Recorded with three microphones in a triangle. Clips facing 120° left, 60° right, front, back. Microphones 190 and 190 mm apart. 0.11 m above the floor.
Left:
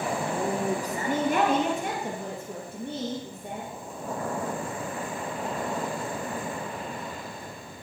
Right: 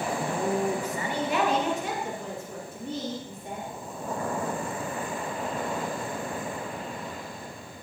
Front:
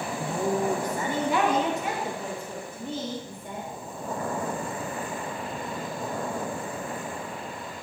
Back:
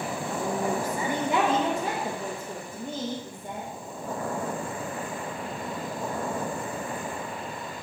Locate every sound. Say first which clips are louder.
0.2 s a woman speaking: right 4 dB, front 4 dB; 50° left, 1.6 m; by 3.7 s 145° left, 4.5 m